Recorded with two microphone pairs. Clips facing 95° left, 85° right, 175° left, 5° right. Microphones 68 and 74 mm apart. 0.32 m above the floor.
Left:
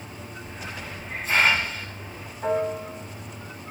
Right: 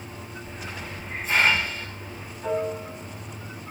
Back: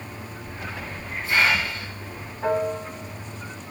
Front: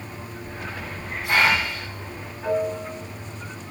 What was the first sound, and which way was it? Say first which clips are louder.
A hiss: left 1 dB, front 1 dB; 10° left.